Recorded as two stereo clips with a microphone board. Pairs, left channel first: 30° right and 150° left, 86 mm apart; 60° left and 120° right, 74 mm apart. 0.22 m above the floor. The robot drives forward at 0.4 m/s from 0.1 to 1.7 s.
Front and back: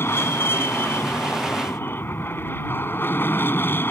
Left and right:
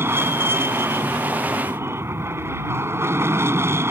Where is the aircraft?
80° right; by 3.9 s 85° right.